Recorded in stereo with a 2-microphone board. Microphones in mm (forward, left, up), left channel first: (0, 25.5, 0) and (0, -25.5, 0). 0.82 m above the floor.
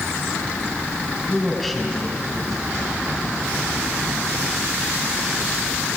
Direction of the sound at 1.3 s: 5° right (ahead or behind).